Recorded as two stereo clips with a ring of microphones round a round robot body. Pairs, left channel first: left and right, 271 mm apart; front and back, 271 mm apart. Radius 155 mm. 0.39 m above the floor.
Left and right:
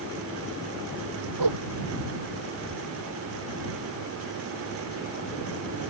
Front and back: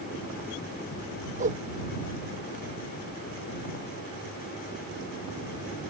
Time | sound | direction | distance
1.4 | a whoosh | 115° right | ?